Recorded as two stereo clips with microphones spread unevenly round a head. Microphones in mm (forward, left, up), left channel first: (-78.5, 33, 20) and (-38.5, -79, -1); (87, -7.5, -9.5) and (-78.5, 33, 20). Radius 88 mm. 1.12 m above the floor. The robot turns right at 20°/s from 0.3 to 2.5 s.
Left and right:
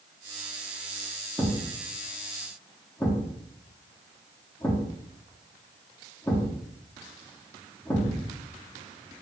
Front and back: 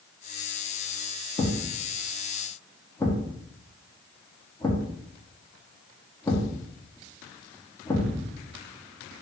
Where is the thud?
40° left, 0.6 m; by 8.4 s 60° left, 0.6 m.